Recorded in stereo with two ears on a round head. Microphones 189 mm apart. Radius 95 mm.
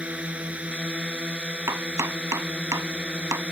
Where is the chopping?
15° right (ahead or behind).